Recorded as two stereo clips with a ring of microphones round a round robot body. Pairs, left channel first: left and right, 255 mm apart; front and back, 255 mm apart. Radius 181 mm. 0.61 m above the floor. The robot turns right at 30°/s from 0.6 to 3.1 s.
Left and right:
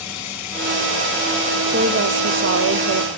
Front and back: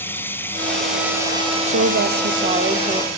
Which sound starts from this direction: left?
Running water, at 0.0 s.